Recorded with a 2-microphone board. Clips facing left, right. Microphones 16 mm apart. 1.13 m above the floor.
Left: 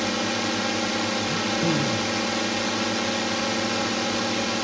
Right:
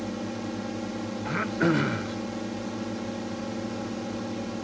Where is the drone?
55° left (ahead or behind).